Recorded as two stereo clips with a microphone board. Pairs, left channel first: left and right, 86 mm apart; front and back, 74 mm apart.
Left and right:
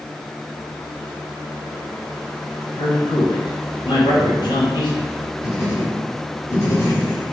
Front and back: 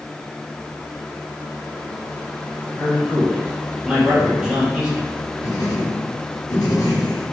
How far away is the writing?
About 1.1 m.